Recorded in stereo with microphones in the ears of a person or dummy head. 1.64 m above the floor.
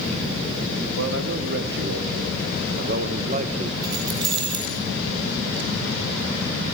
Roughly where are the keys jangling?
Right.